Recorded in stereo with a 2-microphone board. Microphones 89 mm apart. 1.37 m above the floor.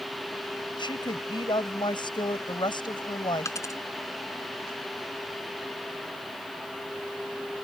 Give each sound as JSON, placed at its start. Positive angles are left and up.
{"t": 0.8, "sound": "a woman speaking", "side_deg": 60}
{"t": 3.5, "sound": "a dropped coin", "side_deg": 35}